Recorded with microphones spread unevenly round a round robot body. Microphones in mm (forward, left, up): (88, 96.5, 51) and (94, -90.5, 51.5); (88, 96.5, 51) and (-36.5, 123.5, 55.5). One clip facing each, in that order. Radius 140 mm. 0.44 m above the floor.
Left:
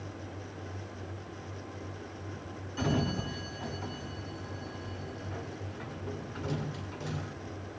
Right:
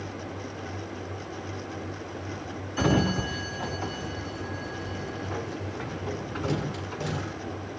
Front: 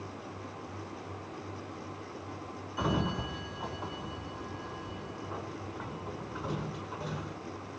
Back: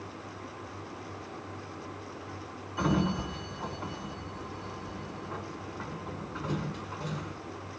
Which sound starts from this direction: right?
A sliding door, at 2.8 s.